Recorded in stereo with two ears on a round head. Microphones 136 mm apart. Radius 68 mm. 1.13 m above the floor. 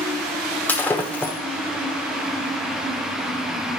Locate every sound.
0.7 s breaking glass: 10° left (ahead or behind), 1.1 m